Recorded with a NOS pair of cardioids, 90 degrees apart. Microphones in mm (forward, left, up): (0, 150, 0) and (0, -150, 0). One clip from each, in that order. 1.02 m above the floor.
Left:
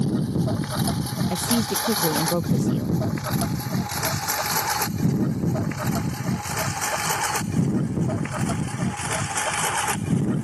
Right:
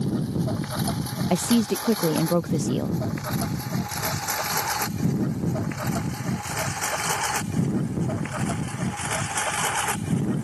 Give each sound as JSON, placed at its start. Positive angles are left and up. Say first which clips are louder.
{"t": 0.0, "sound": "a lawn mower", "louder": "left 2 dB", "azimuth_deg": 65}
{"t": 1.3, "sound": "a woman speaking", "louder": "right 2 dB", "azimuth_deg": -5}